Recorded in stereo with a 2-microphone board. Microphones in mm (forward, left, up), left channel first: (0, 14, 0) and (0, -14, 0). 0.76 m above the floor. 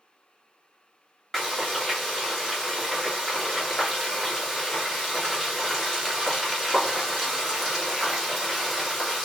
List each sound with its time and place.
1.3 s frying: 10° left (ahead or behind), 1.7 m